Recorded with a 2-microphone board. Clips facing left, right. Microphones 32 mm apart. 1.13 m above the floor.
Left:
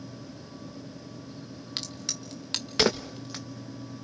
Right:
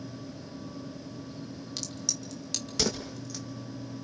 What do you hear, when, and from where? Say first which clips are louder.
1.8 s a crack: left 2 dB; 45° left (ahead or behind), 1.7 m